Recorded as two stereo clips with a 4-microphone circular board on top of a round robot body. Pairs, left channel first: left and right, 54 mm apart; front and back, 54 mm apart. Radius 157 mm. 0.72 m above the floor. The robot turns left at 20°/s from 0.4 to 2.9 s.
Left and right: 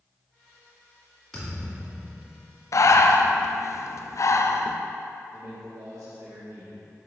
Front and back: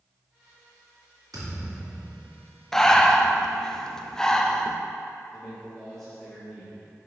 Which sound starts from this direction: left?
Breathing, at 2.7 s.